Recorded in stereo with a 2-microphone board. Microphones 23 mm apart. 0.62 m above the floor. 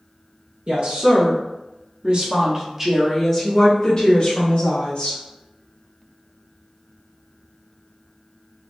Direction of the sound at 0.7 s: 60° right (ahead or behind).